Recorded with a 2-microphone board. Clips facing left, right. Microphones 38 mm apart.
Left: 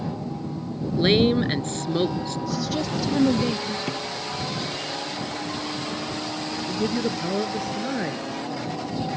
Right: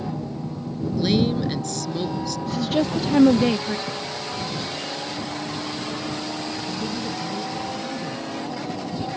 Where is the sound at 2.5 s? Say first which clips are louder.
Right 6 dB; 40° right (ahead or behind).